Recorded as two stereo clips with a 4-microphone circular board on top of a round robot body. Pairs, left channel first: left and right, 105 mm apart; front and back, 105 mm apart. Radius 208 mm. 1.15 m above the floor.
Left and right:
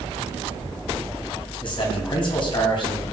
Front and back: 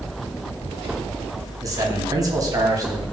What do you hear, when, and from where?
1.6 s a man speaking: 125° left, 2.5 m